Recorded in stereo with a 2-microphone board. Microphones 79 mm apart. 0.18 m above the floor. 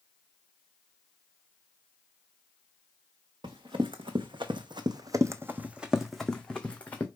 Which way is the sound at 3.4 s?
80° right.